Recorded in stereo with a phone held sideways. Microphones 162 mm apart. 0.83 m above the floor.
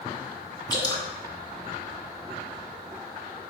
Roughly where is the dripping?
Left.